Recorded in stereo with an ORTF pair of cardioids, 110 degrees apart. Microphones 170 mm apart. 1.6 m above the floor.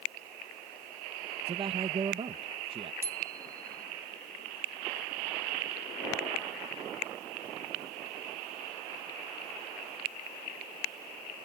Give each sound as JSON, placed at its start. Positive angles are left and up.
{"t": 1.5, "sound": "a man speaking", "azimuth_deg": -35}
{"t": 3.0, "sound": "a bicycle bell", "azimuth_deg": -15}